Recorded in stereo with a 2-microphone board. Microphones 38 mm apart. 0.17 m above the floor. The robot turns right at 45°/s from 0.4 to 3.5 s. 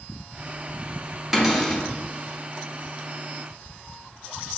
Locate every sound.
1.3 s a cupboard door: 10° right (ahead or behind), 0.8 m; by 1.8 s 5° left (ahead or behind), 0.8 m